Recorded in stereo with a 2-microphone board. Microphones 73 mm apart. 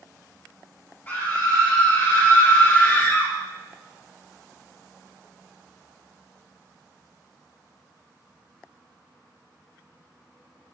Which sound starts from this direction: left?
A scream, at 1.1 s.